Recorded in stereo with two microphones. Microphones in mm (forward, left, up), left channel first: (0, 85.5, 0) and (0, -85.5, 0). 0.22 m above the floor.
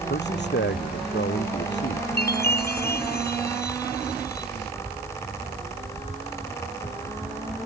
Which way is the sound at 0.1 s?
80° left.